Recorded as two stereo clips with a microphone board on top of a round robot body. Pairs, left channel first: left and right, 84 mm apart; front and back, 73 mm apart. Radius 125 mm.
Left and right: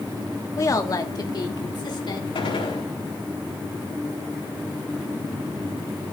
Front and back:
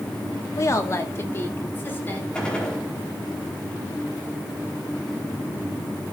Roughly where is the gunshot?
Left.